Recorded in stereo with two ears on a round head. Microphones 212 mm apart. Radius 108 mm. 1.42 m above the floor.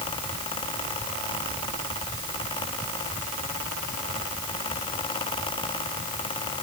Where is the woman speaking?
I don't hear a woman speaking.